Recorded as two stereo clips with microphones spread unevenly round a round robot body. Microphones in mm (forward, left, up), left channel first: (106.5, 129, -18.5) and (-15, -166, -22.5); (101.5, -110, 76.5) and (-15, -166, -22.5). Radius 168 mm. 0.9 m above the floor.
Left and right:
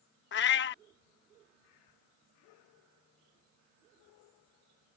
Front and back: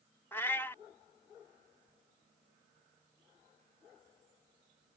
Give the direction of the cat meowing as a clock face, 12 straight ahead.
11 o'clock.